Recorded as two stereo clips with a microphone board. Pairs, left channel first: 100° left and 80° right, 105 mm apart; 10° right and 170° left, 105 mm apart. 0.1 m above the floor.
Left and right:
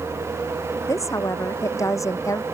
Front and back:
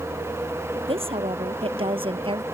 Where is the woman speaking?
160° left; by 2.4 s 155° left.